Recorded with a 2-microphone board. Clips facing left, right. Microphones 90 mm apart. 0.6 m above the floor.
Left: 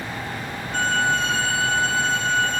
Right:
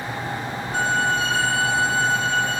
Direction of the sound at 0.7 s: 10° right (ahead or behind).